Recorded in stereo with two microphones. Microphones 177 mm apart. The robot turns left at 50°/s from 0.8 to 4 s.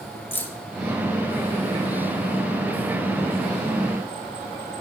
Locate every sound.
0.3 s keys jangling: 10° left (ahead or behind), 1.2 m